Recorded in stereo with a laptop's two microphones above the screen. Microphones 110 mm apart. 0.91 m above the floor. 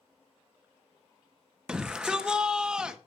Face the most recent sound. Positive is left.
turn(degrees=-10)  # may be behind; listen again after turning